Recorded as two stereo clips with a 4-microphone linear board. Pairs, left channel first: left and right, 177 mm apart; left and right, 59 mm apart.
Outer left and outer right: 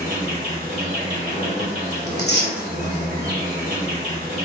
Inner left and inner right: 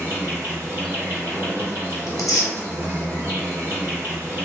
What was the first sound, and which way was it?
An insect, 55° right (ahead or behind).